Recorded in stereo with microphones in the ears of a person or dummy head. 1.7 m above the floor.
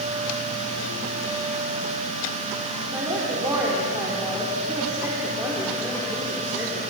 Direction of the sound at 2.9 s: 10° right (ahead or behind).